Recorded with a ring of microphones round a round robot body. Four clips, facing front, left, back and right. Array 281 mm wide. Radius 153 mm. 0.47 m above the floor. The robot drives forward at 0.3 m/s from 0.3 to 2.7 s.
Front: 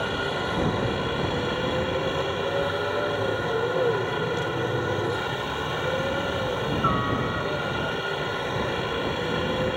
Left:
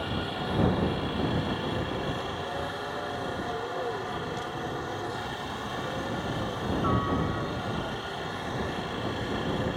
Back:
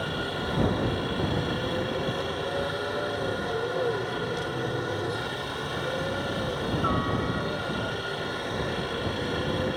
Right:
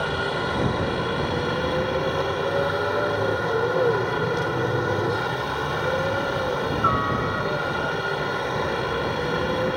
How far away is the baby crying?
I don't hear a baby crying.